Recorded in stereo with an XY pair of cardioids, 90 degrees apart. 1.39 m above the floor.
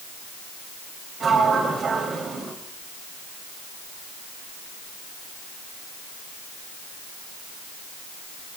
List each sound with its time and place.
1.2 s a sliding door: 50° right, 3 m